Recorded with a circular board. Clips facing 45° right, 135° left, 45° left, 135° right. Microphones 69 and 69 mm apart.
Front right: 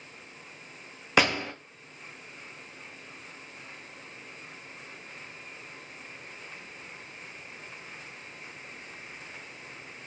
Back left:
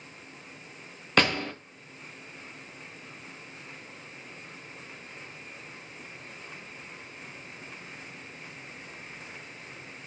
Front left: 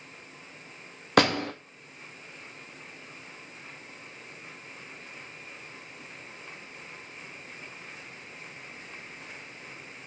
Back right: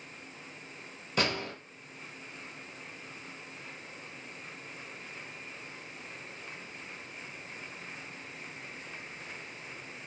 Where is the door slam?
35° left, 0.6 m.